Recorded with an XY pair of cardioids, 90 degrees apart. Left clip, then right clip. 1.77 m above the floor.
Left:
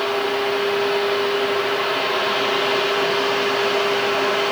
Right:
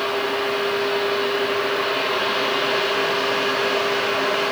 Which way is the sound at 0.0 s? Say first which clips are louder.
Left 1 dB; straight ahead.